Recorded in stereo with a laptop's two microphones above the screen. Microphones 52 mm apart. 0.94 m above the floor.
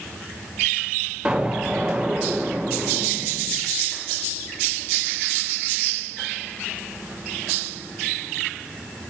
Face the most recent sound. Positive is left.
turn(degrees=-15)  # may be behind; listen again after turning